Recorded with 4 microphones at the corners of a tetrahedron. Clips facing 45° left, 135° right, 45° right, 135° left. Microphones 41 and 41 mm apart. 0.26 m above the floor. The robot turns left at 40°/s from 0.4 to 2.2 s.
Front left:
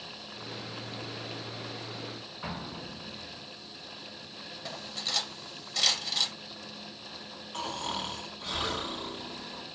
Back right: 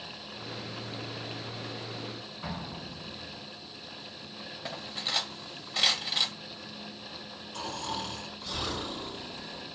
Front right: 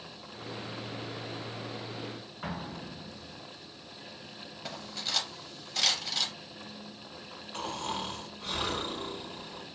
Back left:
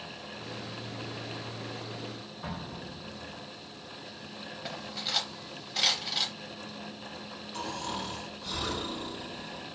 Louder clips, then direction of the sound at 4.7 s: Back right 2 dB, back left 1 dB; 160° right.